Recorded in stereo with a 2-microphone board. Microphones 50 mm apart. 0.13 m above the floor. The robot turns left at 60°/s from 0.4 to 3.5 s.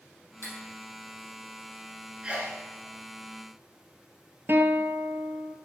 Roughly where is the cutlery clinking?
Left.